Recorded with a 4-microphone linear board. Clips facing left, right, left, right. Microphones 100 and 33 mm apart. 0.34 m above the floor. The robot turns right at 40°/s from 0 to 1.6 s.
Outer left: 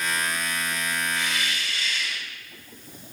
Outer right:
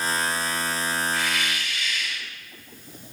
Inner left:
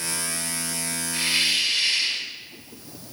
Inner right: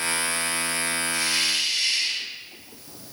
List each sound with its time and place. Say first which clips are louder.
1.1 s a hiss: outer right 2 dB, inner left 4 dB; 25° left (ahead or behind), 1.6 m; by 2.3 s 35° left (ahead or behind), 1.6 m